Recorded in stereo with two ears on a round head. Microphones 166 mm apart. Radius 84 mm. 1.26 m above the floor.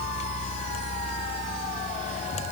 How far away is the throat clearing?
I don't hear throat clearing.